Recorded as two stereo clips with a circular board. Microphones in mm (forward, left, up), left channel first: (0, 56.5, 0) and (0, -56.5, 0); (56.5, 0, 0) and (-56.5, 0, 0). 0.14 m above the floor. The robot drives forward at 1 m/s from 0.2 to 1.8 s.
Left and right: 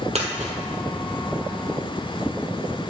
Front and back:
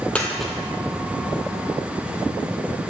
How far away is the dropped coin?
About 1.3 m.